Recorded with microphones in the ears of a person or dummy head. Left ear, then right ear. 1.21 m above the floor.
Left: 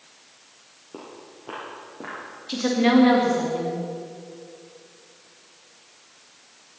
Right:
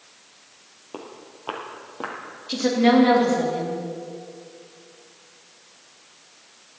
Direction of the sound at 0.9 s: 20° right (ahead or behind).